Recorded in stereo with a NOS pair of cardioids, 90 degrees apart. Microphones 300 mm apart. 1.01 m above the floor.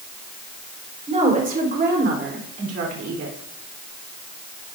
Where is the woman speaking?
20° right, 3.5 m; by 3.3 s 60° right, 3 m.